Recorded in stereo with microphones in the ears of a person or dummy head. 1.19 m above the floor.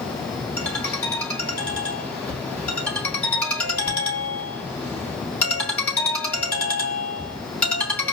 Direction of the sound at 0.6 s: 10° left (ahead or behind).